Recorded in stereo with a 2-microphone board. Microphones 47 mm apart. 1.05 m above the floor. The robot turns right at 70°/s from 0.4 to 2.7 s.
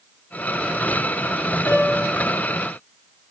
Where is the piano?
55° left, 8 m; by 2.1 s 90° left, 8 m.